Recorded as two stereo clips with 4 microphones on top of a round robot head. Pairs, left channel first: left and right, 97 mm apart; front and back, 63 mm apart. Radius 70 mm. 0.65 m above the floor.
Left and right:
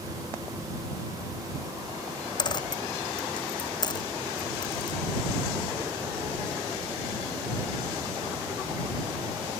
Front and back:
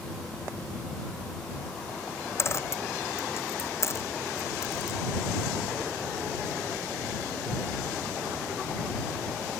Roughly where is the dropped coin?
Ahead left.